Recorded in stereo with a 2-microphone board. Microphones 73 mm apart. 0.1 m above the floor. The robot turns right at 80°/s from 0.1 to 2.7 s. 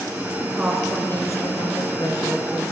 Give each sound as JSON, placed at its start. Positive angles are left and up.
{"t": 0.4, "sound": "a woman speaking", "azimuth_deg": -30, "distance_m": 5.0}